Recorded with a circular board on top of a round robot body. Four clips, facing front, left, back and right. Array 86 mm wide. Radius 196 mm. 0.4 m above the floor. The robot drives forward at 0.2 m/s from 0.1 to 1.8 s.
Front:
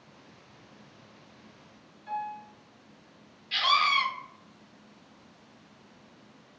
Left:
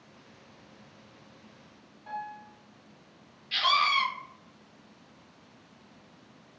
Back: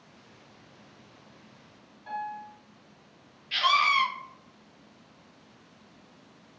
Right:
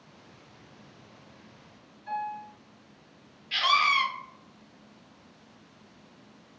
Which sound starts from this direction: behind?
A piano, at 2.1 s.